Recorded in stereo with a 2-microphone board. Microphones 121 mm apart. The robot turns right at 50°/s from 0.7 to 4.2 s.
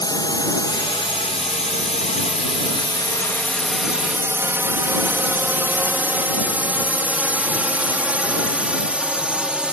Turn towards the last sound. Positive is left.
turn(degrees=-5)  # may be behind; listen again after turning